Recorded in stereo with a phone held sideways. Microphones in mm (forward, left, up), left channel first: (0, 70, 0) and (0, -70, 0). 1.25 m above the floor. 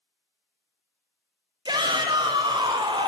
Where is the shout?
30° right (ahead or behind), 1.1 m.